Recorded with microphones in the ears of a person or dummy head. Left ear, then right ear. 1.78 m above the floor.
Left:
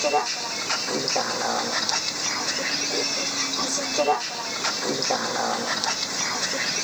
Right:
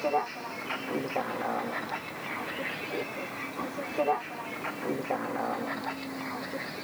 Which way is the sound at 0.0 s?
85° left.